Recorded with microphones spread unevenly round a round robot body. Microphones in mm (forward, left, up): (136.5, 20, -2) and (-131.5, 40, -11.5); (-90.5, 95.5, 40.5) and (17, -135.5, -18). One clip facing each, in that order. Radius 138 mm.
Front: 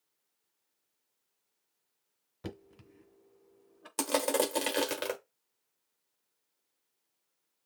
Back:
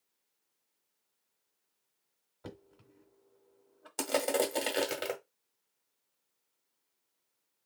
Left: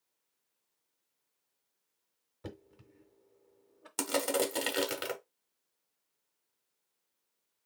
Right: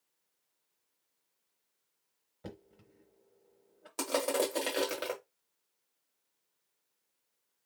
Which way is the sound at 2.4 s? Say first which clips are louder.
Front 5 dB, left 1 dB; 30° left.